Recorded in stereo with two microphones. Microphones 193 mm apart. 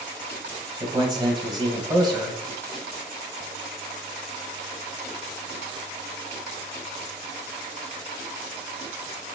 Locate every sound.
0.8 s a man speaking: 20° right (ahead or behind), 1.4 m